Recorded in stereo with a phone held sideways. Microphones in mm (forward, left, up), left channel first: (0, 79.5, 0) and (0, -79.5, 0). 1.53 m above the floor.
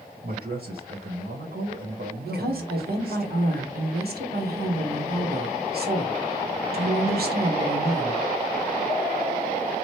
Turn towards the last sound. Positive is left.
turn(degrees=-75)  # may be behind; listen again after turning